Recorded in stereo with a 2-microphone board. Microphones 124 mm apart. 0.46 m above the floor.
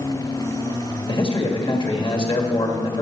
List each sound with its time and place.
1.1 s a man speaking: 40° left (ahead or behind), 1.8 m